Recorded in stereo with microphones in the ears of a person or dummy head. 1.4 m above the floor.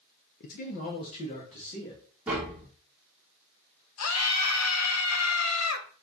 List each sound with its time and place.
0.4 s a man speaking: 50° left (ahead or behind), 0.6 m; by 2.0 s 30° left (ahead or behind), 1.5 m
2.3 s tapping: 5° right (ahead or behind), 0.7 m
4.0 s a scream: 80° left, 0.9 m